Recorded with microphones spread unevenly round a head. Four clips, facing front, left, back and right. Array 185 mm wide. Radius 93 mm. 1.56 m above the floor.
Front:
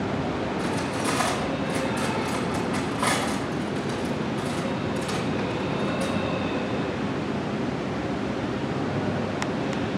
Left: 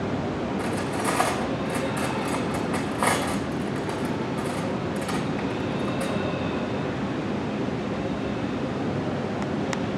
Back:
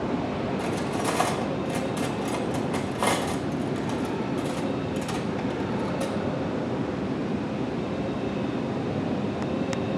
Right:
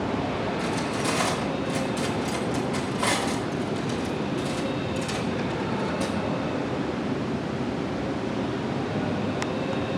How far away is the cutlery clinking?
About 1.1 m.